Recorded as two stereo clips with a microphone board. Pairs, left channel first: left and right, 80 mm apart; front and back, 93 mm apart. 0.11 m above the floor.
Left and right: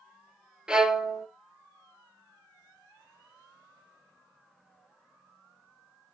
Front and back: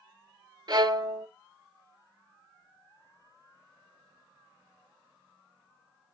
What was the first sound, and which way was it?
A violin, 165° right.